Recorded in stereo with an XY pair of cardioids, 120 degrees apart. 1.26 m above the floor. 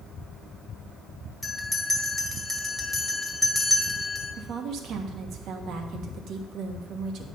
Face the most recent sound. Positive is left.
turn(degrees=-65)